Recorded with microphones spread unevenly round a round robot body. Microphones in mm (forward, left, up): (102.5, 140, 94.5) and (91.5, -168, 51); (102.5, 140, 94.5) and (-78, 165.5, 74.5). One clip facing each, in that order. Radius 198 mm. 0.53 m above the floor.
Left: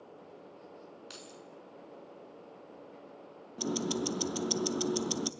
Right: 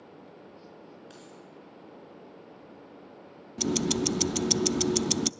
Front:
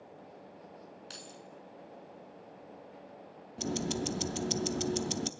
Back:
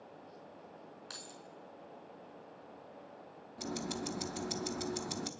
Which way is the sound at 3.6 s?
70° right.